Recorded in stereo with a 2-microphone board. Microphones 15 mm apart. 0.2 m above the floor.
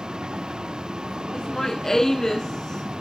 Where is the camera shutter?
No camera shutter in this recording.